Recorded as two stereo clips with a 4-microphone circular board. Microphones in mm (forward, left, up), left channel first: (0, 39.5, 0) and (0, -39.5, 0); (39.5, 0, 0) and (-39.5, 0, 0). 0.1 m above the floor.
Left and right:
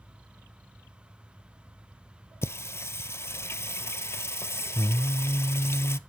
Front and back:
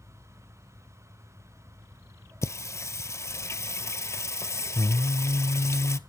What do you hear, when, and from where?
2.4 s singing: 40° left, 0.6 m